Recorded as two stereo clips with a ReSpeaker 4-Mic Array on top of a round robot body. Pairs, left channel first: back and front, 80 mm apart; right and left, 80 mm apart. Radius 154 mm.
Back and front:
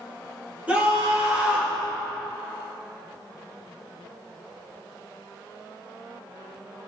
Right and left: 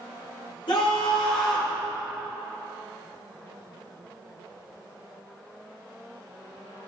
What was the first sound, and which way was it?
A scream, 75° right.